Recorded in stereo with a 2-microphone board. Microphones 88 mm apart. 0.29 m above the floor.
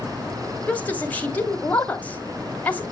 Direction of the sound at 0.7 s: 20° left (ahead or behind).